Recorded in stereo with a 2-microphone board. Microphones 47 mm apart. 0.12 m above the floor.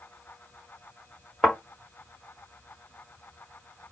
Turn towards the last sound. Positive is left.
turn(degrees=-5)  # may be behind; listen again after turning